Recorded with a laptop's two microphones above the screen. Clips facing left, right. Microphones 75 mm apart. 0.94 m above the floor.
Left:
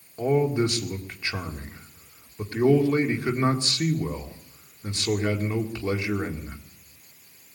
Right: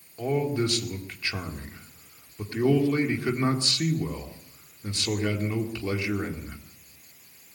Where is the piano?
No piano in this recording.